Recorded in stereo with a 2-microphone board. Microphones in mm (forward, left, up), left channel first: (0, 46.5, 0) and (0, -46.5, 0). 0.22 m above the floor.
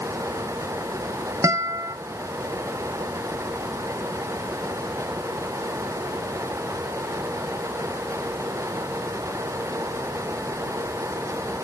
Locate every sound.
1.4 s a guitar: 35° right (ahead or behind), 1.0 m